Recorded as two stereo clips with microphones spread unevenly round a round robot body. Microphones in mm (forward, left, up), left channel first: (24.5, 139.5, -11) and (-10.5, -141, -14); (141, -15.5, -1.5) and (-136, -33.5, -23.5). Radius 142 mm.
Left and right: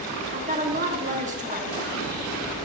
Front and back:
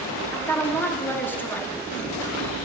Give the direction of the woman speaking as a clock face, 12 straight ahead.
3 o'clock.